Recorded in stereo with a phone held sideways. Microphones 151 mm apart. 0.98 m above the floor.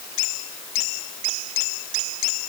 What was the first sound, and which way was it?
Only background noise.